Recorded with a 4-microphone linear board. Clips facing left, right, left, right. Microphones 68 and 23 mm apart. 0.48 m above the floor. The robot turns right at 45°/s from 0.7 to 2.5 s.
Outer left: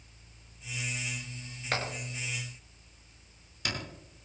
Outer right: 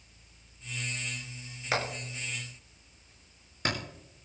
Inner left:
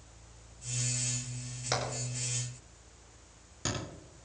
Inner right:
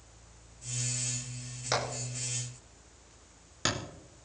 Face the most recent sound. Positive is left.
turn(degrees=-40)  # may be behind; listen again after turning